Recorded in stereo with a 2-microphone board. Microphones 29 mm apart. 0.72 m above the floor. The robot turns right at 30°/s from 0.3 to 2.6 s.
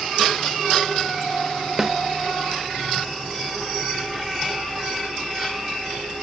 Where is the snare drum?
15° right (ahead or behind), 0.8 m; by 2.0 s 20° right (ahead or behind), 0.8 m.